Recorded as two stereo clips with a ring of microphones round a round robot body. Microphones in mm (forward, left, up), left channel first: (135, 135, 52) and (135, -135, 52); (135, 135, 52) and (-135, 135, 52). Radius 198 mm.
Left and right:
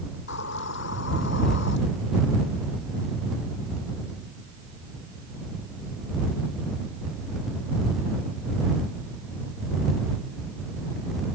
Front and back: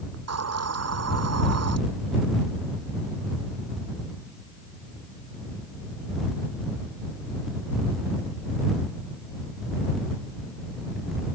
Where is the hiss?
150° left.